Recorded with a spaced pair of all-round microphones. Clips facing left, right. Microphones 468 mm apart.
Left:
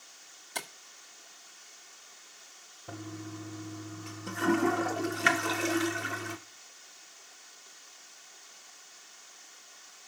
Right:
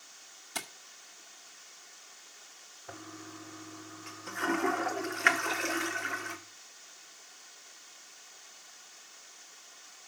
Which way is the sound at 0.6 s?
25° right (ahead or behind).